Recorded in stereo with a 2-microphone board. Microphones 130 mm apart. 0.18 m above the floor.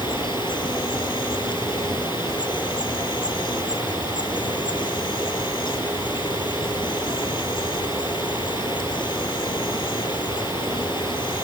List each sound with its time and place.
0.0 s an insect: 35° left (ahead or behind)